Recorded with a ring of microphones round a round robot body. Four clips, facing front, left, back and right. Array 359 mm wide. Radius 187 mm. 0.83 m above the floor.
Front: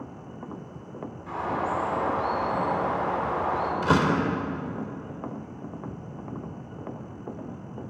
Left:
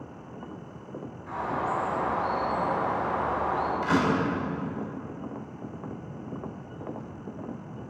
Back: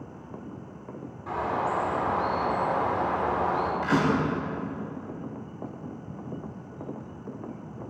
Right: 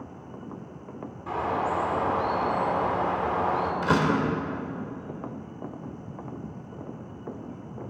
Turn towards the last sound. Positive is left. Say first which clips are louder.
# right 1 dB, front 3 dB
turn(degrees=-30)